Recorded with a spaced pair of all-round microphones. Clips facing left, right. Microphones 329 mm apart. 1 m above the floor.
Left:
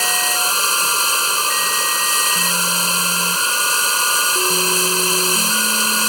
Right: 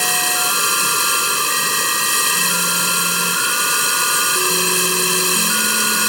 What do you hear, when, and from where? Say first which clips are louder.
0.0 s running water: right 1 dB; 25° right (ahead or behind)